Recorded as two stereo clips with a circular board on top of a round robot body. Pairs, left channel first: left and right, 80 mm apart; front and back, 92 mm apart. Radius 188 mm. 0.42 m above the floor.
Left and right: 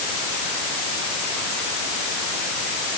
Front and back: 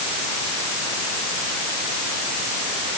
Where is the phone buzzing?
No phone buzzing in this recording.